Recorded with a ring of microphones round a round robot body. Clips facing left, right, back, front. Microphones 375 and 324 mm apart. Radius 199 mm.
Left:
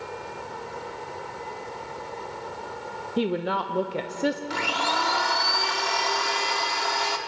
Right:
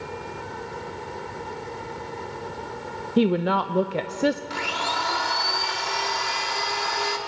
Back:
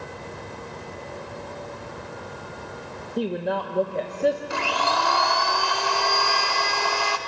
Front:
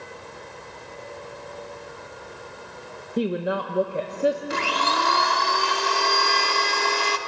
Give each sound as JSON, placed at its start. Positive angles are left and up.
{"t": 3.2, "sound": "a woman speaking", "azimuth_deg": -80, "distance_m": 0.7}
{"t": 4.5, "sound": "a blender", "azimuth_deg": 65, "distance_m": 1.5}